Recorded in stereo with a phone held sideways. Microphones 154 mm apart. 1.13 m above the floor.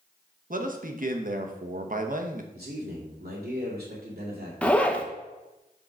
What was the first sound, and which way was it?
A man speaking, 60° right (ahead or behind).